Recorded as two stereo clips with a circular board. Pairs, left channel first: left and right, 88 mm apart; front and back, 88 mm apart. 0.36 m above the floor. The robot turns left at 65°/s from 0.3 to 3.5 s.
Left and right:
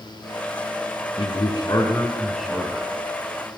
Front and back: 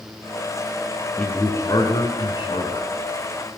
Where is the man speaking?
80° left, 3 m; by 2.9 s 35° right, 3 m.